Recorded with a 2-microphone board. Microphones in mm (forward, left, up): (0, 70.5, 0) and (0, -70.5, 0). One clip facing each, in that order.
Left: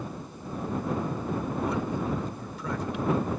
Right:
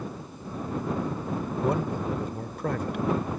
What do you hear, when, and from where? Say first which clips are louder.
1.6 s a man speaking: right 4 dB; 55° right (ahead or behind)